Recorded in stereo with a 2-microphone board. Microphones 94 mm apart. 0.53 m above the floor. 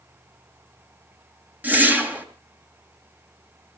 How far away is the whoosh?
About 2.5 m.